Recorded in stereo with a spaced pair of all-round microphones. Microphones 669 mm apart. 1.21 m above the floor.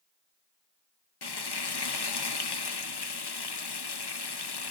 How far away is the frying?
About 0.8 m.